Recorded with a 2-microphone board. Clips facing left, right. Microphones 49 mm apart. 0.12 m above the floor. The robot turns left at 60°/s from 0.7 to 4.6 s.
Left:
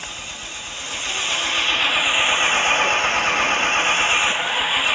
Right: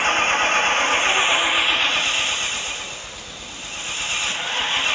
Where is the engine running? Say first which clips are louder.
Right 15 dB; 115° right; by 5.0 s 10° left.